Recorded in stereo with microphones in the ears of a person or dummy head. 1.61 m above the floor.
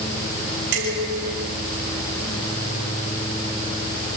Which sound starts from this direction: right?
Dishes clattering, at 0.7 s.